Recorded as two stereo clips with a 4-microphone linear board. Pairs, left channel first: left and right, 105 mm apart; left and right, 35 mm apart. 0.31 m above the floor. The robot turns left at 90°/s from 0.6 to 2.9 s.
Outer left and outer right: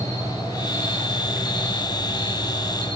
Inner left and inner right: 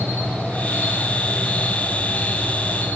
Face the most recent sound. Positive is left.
turn(degrees=55)